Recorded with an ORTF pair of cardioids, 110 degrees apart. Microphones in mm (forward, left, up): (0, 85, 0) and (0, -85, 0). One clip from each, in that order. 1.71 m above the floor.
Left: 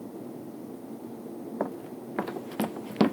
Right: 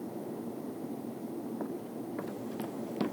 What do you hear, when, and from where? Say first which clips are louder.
1.6 s running footsteps: left 5 dB; 65° left